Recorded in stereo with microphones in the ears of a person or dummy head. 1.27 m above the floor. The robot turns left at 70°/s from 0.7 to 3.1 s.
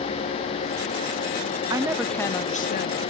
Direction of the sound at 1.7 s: 155° right.